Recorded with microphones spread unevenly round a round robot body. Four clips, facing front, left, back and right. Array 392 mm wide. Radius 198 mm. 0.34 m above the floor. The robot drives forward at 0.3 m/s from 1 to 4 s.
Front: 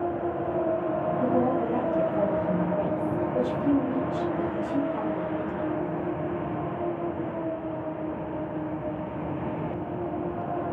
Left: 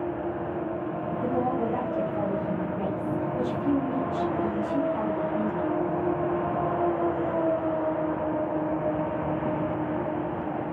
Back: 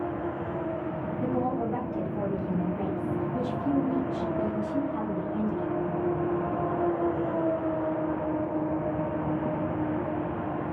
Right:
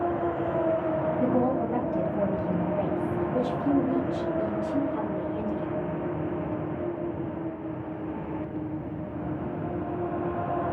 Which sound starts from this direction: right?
A woman speaking, at 1.2 s.